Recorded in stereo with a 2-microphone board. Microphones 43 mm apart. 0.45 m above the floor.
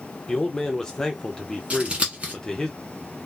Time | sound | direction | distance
0.3 | a man speaking | 15° left (ahead or behind) | 1.0 m
1.7 | scissors | 30° right (ahead or behind) | 1.5 m